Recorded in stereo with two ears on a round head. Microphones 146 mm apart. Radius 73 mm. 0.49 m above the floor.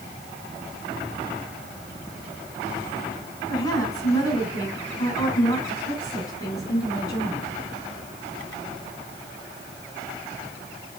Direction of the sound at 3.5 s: 25° left (ahead or behind).